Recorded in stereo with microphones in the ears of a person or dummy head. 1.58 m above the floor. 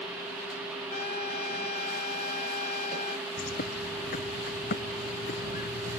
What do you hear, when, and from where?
0.9 s a trumpet: 45° left (ahead or behind)
3.4 s a bird: 50° left (ahead or behind)